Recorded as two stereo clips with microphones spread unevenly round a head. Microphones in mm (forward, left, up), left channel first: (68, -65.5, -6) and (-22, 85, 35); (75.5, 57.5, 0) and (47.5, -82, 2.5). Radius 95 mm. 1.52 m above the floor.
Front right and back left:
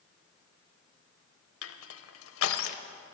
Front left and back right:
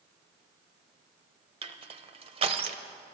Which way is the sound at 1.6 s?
55° right.